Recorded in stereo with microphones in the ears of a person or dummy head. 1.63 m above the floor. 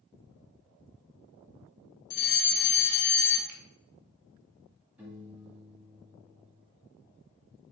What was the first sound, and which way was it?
A fire alarm, 55° left (ahead or behind).